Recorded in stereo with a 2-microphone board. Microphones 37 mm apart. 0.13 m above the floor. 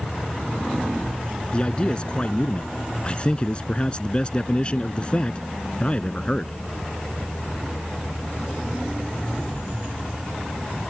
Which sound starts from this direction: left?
A man speaking, at 1.5 s.